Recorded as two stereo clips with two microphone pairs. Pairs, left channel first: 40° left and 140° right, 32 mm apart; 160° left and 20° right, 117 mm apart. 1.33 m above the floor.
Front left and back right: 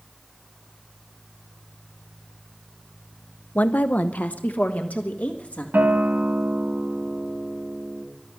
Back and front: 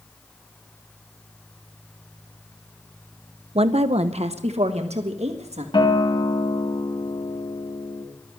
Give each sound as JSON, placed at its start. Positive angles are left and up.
{"t": 3.5, "sound": "a woman speaking", "azimuth_deg": 10, "distance_m": 0.5}
{"t": 5.7, "sound": "a guitar", "azimuth_deg": -155, "distance_m": 2.0}